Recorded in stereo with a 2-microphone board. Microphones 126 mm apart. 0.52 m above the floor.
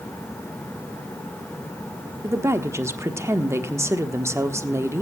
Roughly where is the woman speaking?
Right.